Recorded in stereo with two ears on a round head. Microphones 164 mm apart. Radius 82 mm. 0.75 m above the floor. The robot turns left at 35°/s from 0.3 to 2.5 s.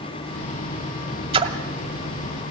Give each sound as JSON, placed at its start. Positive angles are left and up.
{"t": 1.3, "sound": "a splash", "side_deg": -30, "distance_m": 1.6}